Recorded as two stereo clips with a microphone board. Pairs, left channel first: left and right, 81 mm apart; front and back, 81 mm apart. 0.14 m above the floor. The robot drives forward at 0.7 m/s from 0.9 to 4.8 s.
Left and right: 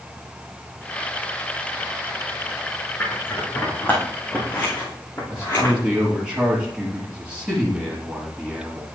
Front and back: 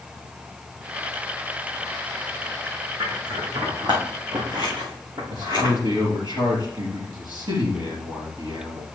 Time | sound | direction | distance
3.0 | scissors | 155° left | 3.5 m
5.3 | a man speaking | 170° right | 4 m